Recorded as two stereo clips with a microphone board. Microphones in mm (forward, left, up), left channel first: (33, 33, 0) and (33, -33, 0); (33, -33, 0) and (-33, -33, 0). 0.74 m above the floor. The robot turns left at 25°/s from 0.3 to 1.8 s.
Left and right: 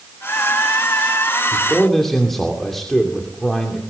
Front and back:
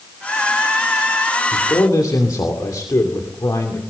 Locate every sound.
1.5 s a man speaking: 10° left, 2.5 m; by 3.8 s 5° left, 2.5 m